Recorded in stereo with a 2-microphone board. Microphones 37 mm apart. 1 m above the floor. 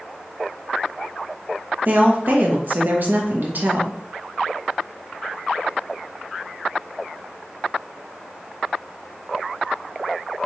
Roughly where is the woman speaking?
Right.